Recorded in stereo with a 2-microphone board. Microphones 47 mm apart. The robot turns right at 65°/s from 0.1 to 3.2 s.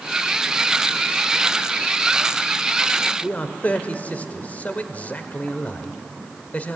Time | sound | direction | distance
3.2 | a man speaking | 30° left (ahead or behind) | 1.1 m